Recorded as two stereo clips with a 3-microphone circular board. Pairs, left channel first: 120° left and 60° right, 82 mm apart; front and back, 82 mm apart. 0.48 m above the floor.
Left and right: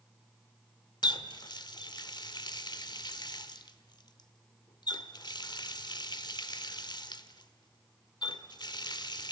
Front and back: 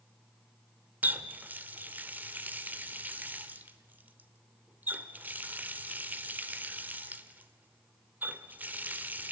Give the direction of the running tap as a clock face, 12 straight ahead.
8 o'clock.